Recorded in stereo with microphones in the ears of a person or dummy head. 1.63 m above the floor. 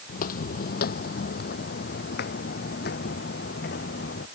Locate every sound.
0.1 s footsteps: 55° left (ahead or behind); by 4.2 s 60° left (ahead or behind)